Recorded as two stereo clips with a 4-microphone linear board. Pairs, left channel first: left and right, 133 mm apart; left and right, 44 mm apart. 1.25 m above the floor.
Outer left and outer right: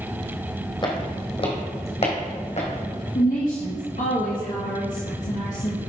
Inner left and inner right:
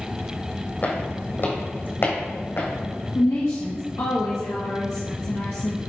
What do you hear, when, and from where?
0.8 s footsteps: 40° left (ahead or behind), 1.8 m; by 2.8 s 60° left (ahead or behind), 2.5 m
3.1 s a woman speaking: 85° left, 1.3 m